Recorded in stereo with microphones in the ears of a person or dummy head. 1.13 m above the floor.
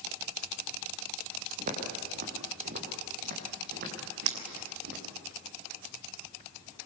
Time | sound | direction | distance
1.6 | footsteps | 50° right (ahead or behind) | 6.5 m
4.3 | breaking glass | 85° right | 3 m